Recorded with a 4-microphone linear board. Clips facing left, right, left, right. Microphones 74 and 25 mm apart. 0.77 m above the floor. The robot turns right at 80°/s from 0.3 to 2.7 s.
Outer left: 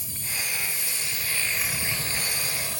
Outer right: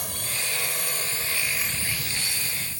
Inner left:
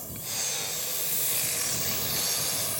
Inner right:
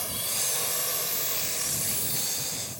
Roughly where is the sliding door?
I don't hear a sliding door.